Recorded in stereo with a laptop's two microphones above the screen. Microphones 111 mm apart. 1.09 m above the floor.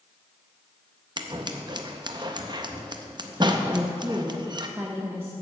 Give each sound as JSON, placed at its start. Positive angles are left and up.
{"t": 1.2, "sound": "scissors", "side_deg": -40, "distance_m": 0.6}
{"t": 3.7, "sound": "a woman speaking", "side_deg": -20, "distance_m": 0.9}